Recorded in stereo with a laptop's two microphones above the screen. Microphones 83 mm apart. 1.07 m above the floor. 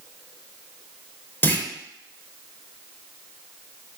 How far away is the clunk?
About 0.6 m.